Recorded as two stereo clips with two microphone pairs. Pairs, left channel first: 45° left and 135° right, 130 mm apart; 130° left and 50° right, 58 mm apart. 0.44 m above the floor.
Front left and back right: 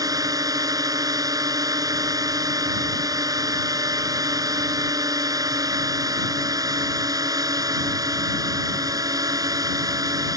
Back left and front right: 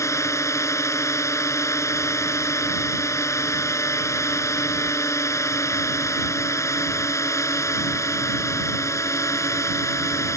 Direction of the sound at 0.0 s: 160° left.